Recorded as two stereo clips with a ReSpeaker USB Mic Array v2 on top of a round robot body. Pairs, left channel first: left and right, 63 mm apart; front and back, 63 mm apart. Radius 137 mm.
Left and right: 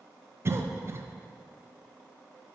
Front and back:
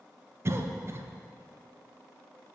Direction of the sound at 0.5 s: 135° right.